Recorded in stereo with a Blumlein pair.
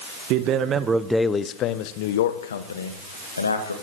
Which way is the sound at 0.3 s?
40° right.